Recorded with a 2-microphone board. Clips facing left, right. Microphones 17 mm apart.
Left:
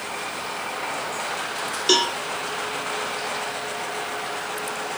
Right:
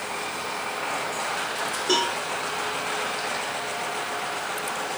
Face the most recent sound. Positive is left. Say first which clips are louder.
# left 4 dB
turn(degrees=80)